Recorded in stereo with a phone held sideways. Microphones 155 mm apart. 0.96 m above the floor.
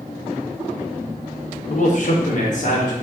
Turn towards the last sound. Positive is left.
turn(degrees=55)  # may be behind; listen again after turning